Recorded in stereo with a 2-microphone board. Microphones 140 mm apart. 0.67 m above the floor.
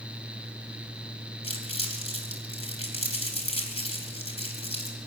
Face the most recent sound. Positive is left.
turn(degrees=45)  # may be behind; listen again after turning